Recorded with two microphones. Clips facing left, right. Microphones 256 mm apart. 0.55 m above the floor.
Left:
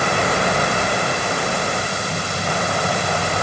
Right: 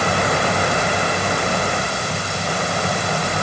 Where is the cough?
I don't hear a cough.